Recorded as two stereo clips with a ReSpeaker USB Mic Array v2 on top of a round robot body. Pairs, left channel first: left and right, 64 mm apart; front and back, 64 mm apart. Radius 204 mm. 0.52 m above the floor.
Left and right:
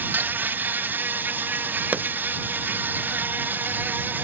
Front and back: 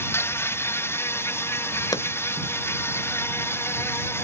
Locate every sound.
0.0 s an insect: 40° right
1.9 s a pop: 25° right